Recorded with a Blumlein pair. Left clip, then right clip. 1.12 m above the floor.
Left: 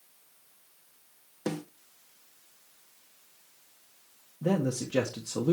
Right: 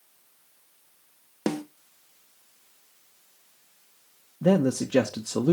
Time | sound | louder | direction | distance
1.5 | a snare drum | right 5 dB | 15° right | 0.8 m
4.4 | a man speaking | right 7 dB | 20° right | 0.8 m